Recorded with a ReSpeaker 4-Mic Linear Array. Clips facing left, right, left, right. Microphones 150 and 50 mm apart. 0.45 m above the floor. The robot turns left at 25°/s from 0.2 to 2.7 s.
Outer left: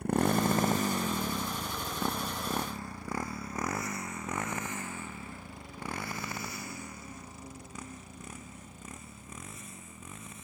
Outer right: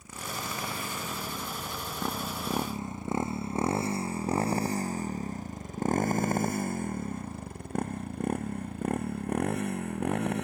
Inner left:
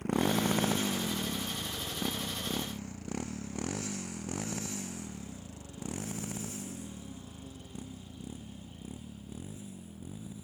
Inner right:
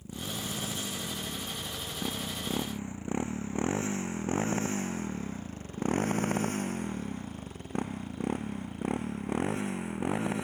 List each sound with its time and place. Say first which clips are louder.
0.0 s a motorcycle: outer left 12 dB, inner left 9 dB; 60° left (ahead or behind); by 10.4 s 70° right (ahead or behind)